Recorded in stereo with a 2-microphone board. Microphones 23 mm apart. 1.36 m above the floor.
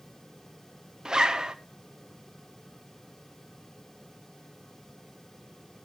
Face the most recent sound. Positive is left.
turn(degrees=-35)  # may be behind; listen again after turning